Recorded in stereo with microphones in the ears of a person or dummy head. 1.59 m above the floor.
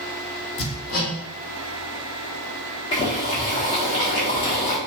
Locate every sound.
0.6 s hammering: 75° left (ahead or behind), 1.2 m
2.9 s boiling: 25° left (ahead or behind), 0.8 m